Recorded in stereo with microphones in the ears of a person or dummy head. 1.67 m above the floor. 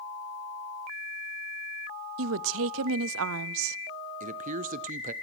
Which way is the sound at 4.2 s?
45° right (ahead or behind).